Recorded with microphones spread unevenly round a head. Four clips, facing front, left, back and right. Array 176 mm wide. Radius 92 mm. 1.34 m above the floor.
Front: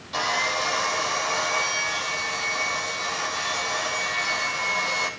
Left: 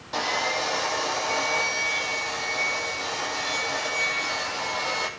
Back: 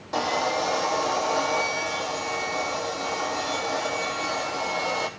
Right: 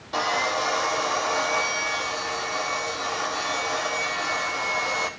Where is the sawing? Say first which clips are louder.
Right 2 dB, back 2 dB; straight behind, 3.5 m.